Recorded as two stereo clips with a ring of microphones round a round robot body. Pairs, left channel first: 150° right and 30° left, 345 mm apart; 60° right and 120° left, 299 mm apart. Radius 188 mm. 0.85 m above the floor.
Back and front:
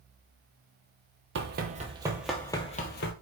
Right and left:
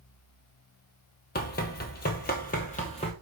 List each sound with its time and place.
1.4 s running footsteps: 15° right, 1.1 m; by 3.1 s 120° right, 0.9 m